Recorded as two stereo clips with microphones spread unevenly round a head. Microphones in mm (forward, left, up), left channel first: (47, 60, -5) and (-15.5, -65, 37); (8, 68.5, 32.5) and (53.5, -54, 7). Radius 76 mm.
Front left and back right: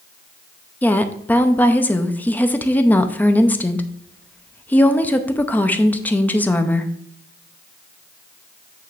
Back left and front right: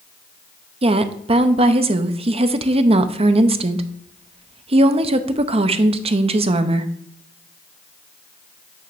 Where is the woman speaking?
20° right, 0.7 m.